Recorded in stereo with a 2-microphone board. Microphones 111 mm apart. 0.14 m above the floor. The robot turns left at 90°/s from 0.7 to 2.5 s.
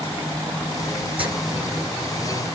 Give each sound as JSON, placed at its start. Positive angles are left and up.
{"t": 1.2, "sound": "writing", "side_deg": -55, "distance_m": 1.7}